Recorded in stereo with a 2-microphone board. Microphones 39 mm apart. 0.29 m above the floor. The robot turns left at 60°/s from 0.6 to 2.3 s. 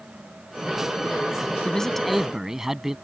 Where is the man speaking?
25° left; by 3.0 s 15° right.